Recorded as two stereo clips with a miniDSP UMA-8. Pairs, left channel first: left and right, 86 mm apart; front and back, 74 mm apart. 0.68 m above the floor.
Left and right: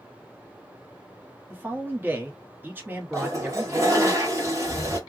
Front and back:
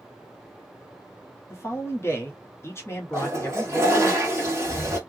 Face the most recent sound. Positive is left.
turn(degrees=-135)